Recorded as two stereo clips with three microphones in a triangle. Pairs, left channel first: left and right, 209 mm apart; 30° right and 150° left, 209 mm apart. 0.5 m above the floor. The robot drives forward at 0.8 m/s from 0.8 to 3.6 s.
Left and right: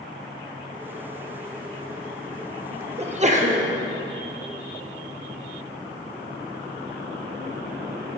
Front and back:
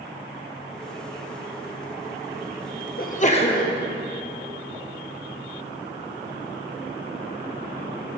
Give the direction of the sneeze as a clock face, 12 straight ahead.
1 o'clock.